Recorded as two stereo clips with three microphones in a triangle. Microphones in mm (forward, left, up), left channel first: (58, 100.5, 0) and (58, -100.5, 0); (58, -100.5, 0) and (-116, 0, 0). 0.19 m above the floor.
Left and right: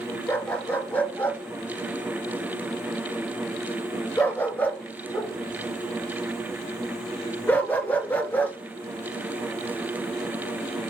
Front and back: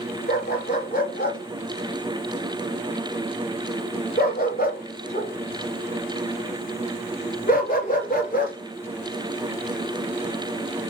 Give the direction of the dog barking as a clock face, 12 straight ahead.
12 o'clock.